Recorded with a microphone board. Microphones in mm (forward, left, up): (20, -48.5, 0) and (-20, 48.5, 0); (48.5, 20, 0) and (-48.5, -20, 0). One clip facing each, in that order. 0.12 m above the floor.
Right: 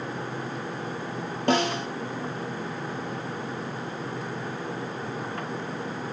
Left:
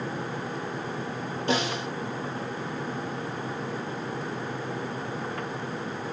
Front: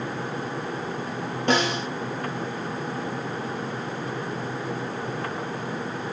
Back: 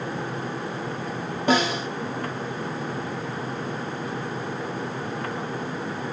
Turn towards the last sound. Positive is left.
turn(degrees=-75)